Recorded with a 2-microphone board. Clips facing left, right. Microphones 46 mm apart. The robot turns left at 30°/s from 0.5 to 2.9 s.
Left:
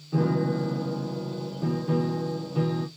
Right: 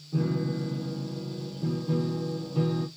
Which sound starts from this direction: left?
A piano, at 0.1 s.